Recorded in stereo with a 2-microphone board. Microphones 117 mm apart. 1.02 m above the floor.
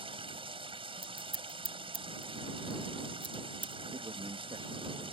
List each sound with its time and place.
0.0 s running water: 50° right (ahead or behind)
1.0 s scissors: 45° left (ahead or behind)
3.9 s a man speaking: 45° right (ahead or behind)